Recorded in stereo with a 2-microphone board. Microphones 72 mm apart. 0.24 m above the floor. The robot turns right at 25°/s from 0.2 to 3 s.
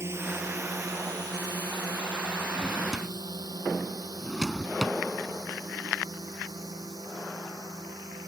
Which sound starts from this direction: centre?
A drawer, at 2.5 s.